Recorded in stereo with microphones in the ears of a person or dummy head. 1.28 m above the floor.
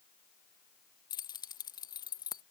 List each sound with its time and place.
1.1 s keys jangling: 25° left (ahead or behind)